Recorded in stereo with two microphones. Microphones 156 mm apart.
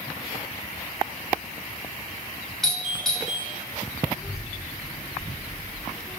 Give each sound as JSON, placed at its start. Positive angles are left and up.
{"t": 2.6, "sound": "a doorbell", "side_deg": 0, "distance_m": 5.0}
{"t": 4.1, "sound": "a child speaking", "side_deg": -25, "distance_m": 3.5}